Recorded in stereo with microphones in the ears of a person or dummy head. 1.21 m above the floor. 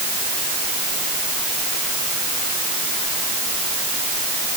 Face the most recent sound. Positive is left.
No sound to turn to.